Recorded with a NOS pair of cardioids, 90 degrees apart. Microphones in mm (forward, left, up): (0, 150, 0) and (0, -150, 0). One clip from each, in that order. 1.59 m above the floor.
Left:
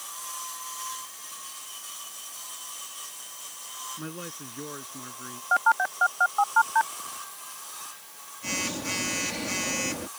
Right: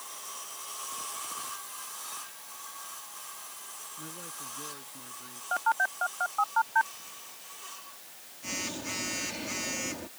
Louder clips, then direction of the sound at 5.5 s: Left 5 dB; 30° left.